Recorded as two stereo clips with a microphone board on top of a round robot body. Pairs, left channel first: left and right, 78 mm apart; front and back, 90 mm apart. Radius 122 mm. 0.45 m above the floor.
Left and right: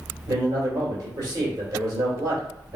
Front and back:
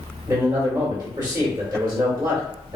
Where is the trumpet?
I don't hear a trumpet.